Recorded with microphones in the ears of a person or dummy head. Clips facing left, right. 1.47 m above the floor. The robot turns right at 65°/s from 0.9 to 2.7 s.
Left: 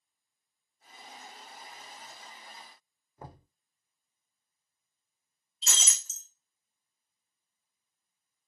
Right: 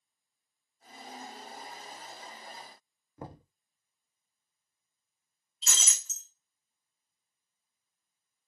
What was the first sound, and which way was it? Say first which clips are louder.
Knocking: right 4 dB; 65° right (ahead or behind).